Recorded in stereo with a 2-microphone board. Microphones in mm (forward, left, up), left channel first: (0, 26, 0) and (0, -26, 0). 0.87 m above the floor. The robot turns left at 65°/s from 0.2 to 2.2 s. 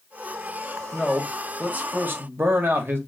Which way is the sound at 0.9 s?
5° left.